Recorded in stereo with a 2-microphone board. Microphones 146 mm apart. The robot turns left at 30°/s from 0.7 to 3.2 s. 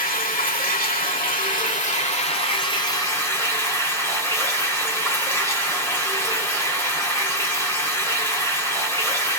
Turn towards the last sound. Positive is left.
turn(degrees=20)